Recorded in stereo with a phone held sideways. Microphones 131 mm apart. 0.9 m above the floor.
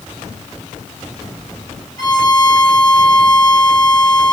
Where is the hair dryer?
I don't hear a hair dryer.